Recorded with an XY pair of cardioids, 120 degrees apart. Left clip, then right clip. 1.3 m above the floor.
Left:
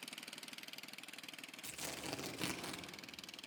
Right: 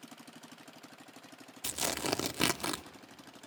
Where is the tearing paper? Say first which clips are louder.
Right 13 dB; 70° right, 0.5 m.